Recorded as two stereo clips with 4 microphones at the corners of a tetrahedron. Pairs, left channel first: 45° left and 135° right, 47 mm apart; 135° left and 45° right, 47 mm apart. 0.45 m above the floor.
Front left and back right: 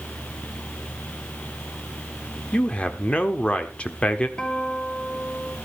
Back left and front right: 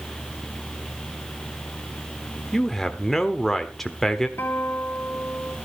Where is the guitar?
105° left, 3.5 m.